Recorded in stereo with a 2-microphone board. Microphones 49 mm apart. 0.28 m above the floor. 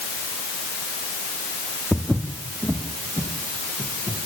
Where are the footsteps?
30° right (ahead or behind), 1.7 m; by 4.3 s 75° right (ahead or behind), 3 m.